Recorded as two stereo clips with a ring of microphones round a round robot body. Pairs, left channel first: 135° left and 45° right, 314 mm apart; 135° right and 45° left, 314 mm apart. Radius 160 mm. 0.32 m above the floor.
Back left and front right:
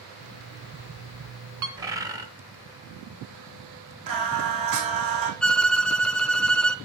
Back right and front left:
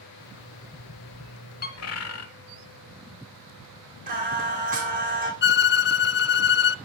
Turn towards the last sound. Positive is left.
turn(degrees=-140)